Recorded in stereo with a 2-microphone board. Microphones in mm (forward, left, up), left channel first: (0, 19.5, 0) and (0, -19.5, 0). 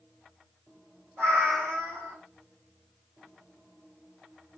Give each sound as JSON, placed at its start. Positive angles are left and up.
{"t": 1.2, "sound": "a cat meowing", "side_deg": -60, "distance_m": 2.0}